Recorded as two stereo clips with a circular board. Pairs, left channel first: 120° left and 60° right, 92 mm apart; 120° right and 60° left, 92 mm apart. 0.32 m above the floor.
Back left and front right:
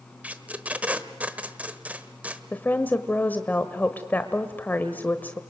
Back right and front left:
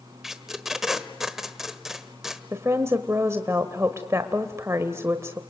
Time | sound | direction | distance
0.2 | tape being pulled | 20° right | 1.2 m
2.5 | a woman speaking | 70° left | 1.1 m